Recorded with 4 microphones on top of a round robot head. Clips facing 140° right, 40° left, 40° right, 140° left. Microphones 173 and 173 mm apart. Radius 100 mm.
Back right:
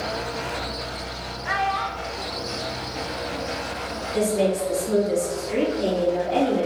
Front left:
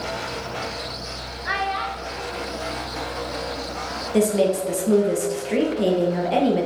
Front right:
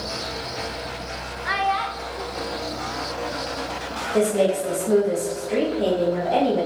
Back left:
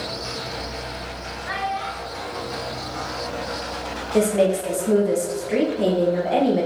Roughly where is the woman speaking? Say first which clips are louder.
Front left 3 dB, back left 1 dB; left.